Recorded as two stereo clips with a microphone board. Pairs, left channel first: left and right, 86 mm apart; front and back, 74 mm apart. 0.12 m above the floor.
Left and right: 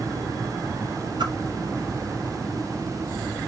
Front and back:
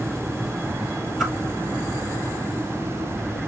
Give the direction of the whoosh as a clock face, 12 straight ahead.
3 o'clock.